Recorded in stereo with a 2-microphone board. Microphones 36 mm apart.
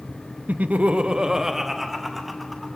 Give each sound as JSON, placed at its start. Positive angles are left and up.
{"t": 0.5, "sound": "laughter", "side_deg": -50, "distance_m": 0.6}